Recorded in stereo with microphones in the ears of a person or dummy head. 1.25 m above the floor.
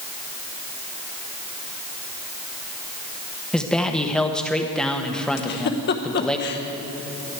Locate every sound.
3.5 s a man speaking: 5° left (ahead or behind), 0.9 m
5.4 s a giggle: 60° left (ahead or behind), 0.9 m